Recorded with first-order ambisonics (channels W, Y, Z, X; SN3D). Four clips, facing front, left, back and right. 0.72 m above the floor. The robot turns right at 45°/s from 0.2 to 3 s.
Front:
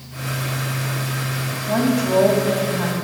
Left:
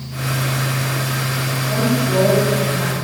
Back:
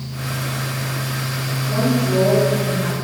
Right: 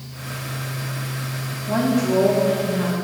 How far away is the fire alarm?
I don't hear a fire alarm.